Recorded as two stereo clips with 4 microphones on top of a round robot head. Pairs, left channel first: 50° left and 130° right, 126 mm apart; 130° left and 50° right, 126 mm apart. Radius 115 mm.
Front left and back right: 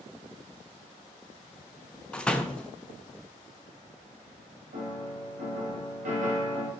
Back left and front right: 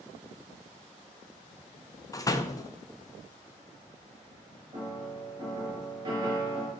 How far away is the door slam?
About 0.5 m.